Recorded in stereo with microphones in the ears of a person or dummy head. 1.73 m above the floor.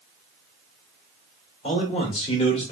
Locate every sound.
1.6 s a man speaking: 35° left (ahead or behind), 1.3 m